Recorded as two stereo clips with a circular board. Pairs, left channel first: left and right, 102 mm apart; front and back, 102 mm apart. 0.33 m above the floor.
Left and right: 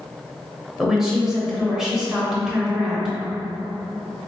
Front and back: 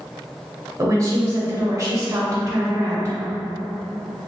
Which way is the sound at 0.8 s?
170° right.